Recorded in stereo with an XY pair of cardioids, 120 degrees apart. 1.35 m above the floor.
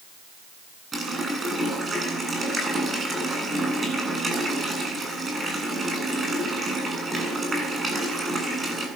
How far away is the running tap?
About 8.5 m.